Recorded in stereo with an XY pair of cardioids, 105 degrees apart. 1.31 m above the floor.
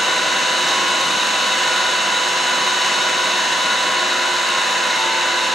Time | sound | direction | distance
0.0 | an engine running | straight ahead | 1.0 m